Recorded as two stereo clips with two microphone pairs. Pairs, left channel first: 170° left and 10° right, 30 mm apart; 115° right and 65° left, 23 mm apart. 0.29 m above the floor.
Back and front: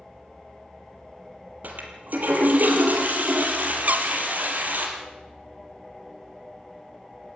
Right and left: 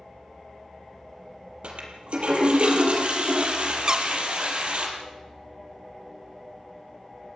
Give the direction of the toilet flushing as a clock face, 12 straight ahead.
11 o'clock.